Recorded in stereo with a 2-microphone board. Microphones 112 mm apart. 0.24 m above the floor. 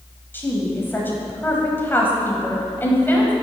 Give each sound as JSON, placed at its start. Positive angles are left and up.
{"t": 0.3, "sound": "a woman speaking", "side_deg": 20, "distance_m": 1.3}